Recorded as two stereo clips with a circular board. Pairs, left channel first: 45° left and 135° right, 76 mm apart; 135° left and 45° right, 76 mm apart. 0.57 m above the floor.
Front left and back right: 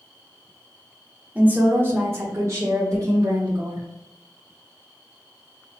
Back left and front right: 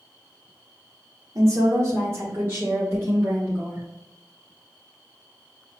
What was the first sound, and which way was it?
A woman speaking, 70° right.